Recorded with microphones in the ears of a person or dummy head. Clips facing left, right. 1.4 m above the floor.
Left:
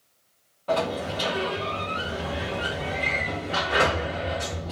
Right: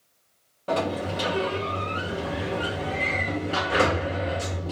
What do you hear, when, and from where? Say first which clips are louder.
0.7 s a sliding door: even; 20° right (ahead or behind), 0.8 m